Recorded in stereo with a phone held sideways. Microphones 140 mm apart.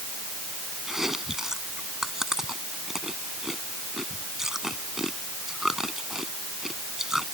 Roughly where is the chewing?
Centre.